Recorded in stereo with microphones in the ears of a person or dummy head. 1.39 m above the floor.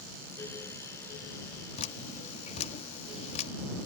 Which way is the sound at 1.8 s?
35° left (ahead or behind).